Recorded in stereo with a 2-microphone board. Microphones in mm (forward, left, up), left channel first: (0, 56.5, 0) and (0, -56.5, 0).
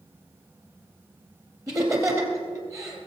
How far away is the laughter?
About 3 m.